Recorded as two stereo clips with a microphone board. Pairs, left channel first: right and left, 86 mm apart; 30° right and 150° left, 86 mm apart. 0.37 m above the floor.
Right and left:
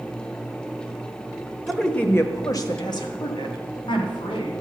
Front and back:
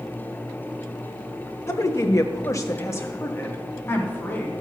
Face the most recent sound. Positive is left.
turn(degrees=-95)